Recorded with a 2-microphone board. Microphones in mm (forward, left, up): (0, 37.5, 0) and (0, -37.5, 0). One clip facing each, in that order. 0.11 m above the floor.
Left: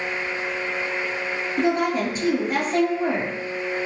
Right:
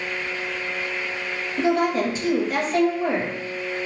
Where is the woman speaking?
50° left (ahead or behind), 1.8 m.